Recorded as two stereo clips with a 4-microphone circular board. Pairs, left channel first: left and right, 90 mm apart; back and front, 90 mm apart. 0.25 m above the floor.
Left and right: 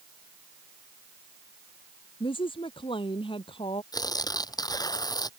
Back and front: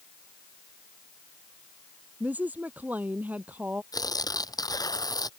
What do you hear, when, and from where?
2.2 s a woman speaking: 75° left
3.9 s tearing paper: 135° left